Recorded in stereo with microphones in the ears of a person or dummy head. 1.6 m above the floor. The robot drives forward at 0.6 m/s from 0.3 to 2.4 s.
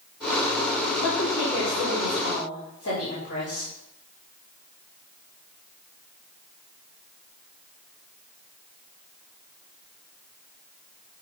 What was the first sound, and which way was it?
A woman speaking, 55° left (ahead or behind).